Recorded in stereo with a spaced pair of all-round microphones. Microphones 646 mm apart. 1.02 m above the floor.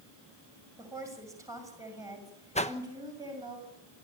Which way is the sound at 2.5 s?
10° left (ahead or behind).